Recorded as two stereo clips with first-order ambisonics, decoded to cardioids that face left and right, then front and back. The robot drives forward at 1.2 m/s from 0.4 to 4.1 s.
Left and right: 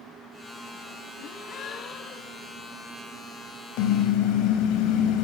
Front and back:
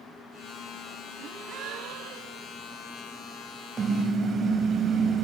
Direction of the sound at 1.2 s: 130° left.